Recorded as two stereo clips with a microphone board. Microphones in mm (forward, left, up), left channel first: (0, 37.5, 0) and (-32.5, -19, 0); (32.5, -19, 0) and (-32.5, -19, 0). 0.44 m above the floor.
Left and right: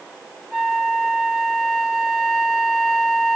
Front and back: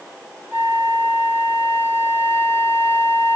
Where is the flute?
140° left, 1.2 m.